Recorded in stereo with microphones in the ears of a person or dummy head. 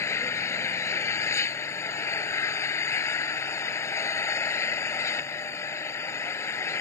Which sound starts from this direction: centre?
An engine running, at 0.0 s.